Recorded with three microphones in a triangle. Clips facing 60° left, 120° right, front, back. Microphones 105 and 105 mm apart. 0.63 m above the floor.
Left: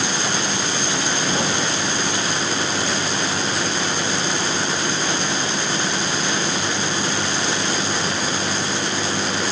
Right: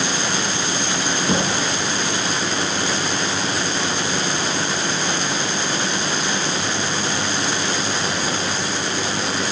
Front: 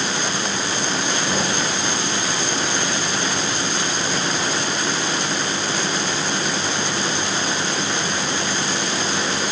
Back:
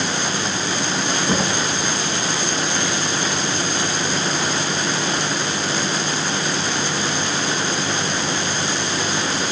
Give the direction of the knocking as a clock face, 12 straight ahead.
4 o'clock.